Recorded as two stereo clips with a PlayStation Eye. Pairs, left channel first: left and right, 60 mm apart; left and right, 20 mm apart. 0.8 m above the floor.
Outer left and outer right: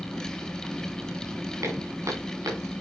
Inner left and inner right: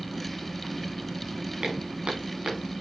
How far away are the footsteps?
About 6 m.